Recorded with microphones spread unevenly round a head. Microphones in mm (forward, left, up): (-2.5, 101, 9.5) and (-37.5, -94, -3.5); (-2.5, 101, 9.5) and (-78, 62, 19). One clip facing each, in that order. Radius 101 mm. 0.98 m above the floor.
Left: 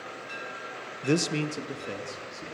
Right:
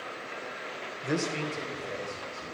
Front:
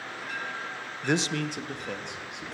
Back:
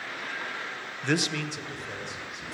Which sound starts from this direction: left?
A man speaking, at 1.0 s.